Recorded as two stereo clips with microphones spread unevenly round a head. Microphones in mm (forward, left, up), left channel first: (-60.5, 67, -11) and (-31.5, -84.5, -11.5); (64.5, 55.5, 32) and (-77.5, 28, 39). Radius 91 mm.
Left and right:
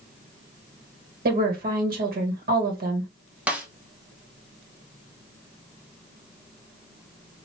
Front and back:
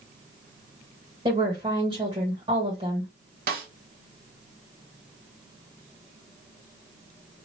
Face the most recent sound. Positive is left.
turn(degrees=-160)